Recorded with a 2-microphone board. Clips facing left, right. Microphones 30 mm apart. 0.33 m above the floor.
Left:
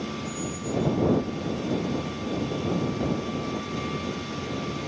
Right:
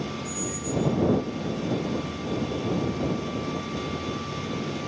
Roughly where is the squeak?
Right.